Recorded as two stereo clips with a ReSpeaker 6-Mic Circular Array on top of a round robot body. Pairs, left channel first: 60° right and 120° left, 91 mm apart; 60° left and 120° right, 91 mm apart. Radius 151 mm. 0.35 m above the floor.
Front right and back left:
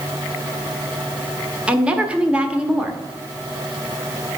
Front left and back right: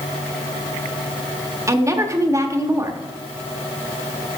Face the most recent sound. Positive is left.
turn(degrees=-165)